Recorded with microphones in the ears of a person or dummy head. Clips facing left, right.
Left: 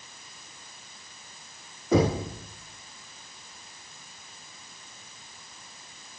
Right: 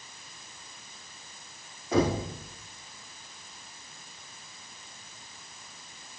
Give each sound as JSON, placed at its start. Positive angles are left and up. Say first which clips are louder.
{"t": 1.9, "sound": "knocking", "louder": "left 3 dB", "side_deg": 75, "distance_m": 4.5}